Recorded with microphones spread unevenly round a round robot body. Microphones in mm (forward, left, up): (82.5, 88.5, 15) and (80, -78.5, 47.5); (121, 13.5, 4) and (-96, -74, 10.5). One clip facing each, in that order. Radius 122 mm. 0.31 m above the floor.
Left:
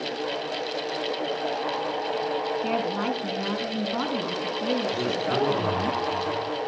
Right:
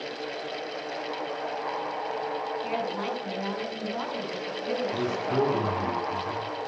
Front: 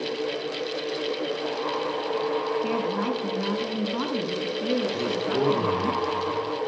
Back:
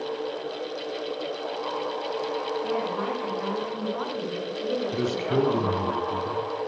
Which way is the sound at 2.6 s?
65° left.